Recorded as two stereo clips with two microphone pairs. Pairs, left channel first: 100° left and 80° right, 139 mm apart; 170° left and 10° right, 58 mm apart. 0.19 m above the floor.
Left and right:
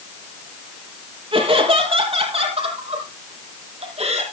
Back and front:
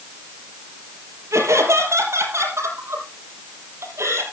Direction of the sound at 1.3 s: 35° right.